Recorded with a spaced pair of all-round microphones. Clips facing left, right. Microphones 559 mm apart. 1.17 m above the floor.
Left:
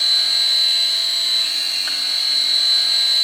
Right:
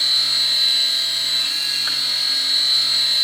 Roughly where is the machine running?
Right.